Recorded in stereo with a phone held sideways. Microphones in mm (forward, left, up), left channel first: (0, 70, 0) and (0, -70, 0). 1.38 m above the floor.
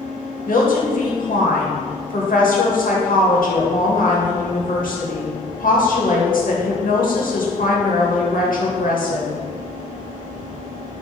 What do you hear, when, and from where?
0.5 s a woman speaking: 80° left, 2.0 m